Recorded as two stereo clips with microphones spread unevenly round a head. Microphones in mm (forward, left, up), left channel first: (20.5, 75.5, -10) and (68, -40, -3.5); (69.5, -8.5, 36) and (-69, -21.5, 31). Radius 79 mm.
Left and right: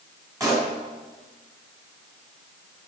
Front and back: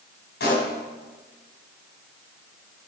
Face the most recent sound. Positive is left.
turn(degrees=-5)